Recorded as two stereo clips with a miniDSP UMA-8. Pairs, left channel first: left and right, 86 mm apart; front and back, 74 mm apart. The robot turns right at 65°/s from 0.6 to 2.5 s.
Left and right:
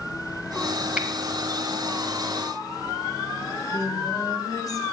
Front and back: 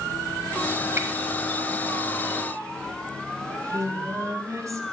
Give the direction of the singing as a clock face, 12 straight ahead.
8 o'clock.